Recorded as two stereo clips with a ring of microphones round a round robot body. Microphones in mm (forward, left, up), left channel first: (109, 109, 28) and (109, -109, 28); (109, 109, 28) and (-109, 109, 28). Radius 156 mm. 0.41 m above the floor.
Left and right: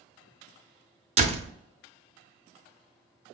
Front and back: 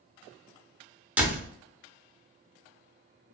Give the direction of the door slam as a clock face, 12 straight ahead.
3 o'clock.